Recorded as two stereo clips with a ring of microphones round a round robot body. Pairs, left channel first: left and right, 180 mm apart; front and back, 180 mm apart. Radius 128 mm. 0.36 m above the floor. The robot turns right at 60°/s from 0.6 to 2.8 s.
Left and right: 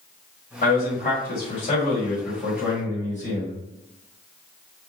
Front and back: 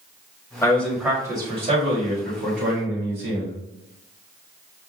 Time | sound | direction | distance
0.6 | a man speaking | 70° left | 2 m